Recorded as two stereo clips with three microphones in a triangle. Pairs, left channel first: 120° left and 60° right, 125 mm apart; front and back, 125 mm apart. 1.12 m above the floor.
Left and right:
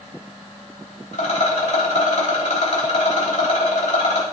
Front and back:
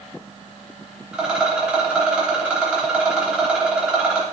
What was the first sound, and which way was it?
A rattle, 100° left.